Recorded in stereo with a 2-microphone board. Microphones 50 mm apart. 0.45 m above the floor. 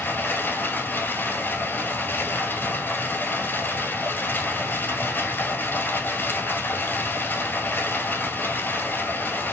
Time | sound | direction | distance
0.0 | running water | 40° left (ahead or behind) | 1.4 m